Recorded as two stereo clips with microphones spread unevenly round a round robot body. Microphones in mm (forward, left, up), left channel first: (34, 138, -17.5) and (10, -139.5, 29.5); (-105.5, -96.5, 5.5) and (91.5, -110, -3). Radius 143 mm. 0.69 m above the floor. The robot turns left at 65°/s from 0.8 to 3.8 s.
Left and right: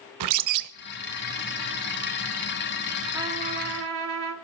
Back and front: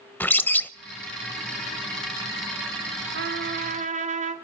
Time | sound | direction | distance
0.2 | a bird | 105° right | 0.9 m
3.1 | a trumpet | 10° right | 2.0 m